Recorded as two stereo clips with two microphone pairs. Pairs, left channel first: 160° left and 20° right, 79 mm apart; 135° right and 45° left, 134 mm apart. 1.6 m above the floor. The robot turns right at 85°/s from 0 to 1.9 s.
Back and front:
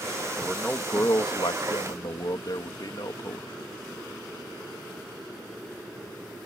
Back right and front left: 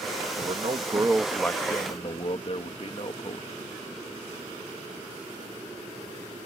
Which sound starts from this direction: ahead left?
A man speaking, at 0.4 s.